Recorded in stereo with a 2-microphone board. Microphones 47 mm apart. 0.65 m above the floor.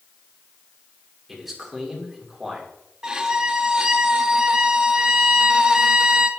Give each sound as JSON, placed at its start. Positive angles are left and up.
{"t": 1.3, "sound": "a man speaking", "side_deg": 0, "distance_m": 2.5}
{"t": 3.0, "sound": "a violin", "side_deg": -15, "distance_m": 0.6}